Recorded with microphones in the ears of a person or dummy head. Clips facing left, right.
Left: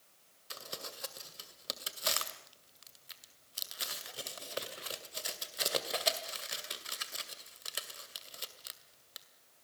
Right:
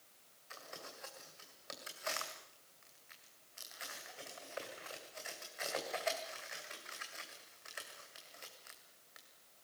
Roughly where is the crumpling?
Left.